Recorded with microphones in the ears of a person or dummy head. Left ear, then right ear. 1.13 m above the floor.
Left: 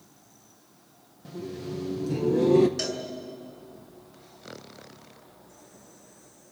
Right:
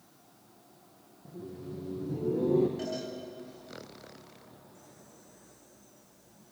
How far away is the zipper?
I don't hear a zipper.